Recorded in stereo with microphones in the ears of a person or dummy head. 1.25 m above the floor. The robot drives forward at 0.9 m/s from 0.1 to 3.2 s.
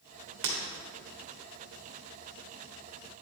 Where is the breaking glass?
55° right (ahead or behind), 1.4 m.